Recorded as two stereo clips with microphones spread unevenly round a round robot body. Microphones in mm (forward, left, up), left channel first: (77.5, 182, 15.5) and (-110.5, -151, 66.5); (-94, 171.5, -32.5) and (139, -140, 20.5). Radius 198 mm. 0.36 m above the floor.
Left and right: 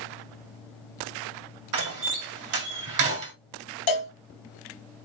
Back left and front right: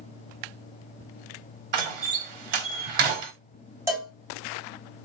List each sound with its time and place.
1.7 s a door slam: 75° right, 1.8 m
3.9 s a cowbell: 30° left, 3 m